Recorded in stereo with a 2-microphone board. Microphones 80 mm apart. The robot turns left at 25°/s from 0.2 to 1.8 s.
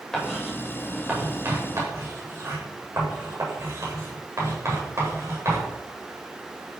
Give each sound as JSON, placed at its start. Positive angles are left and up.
{"t": 0.1, "sound": "writing", "side_deg": 5, "distance_m": 7.0}